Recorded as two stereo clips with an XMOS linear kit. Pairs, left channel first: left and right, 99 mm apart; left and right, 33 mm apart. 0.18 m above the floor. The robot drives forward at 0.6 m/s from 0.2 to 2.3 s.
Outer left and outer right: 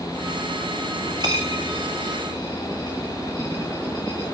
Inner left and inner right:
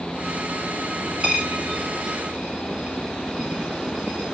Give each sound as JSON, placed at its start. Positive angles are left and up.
{"t": 1.2, "sound": "a dropped coin", "side_deg": -40, "distance_m": 9.0}